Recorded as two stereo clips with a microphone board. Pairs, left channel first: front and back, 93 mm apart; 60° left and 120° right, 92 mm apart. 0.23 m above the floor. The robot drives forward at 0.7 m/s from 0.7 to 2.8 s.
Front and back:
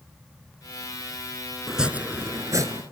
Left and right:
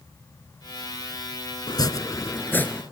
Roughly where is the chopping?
Left.